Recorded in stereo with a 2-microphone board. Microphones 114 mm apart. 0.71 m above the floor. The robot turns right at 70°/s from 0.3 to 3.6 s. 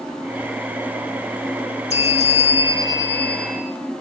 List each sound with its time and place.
1.9 s a bell: 75° left, 1.5 m; by 3.7 s 170° right, 1.5 m